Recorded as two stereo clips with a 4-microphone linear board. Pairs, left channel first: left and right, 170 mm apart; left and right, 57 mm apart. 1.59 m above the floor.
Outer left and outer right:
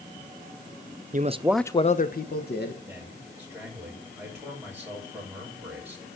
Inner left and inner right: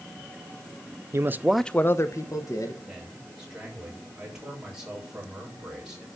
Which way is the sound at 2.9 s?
10° right (ahead or behind).